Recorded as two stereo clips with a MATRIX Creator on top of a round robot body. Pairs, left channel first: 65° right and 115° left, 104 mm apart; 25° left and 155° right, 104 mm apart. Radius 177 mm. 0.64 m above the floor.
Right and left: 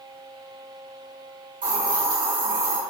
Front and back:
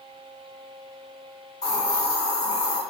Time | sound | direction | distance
1.6 | a hiss | 75° left | 6 m